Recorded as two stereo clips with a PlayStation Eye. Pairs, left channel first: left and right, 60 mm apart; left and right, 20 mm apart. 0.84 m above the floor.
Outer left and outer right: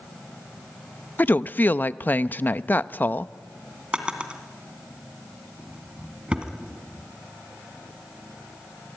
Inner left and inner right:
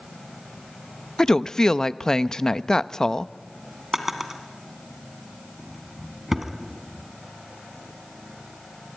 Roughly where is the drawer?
Centre.